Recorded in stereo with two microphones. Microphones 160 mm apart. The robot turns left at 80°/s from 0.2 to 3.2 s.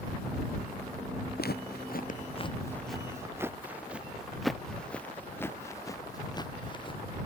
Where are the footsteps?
70° left (ahead or behind); by 7.0 s 35° left (ahead or behind).